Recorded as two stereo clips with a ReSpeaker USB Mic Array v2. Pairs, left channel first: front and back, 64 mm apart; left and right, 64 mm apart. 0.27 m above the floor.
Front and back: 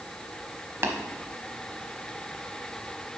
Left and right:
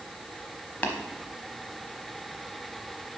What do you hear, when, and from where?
0.8 s tapping: 145° left, 1.0 m